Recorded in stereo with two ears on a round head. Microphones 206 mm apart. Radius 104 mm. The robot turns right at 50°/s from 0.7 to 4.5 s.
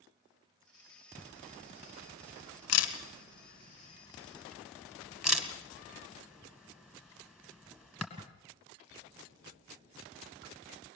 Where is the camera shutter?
15° left (ahead or behind), 2 m; by 8.3 s 5° right (ahead or behind), 2 m.